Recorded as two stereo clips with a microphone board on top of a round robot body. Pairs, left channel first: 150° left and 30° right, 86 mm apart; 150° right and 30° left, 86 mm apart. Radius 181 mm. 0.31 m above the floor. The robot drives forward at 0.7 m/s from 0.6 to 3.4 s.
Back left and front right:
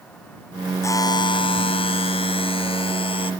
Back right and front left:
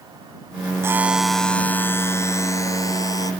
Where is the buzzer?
90° left; by 3.3 s 160° left.